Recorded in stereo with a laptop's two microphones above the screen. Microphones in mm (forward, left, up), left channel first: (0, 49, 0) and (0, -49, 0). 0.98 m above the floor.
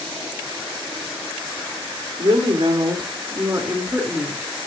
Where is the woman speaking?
65° right (ahead or behind), 2.5 m; by 4.5 s 10° right (ahead or behind), 2.5 m.